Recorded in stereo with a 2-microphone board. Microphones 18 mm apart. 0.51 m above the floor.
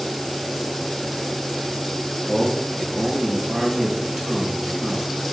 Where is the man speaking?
45° right (ahead or behind), 3 m.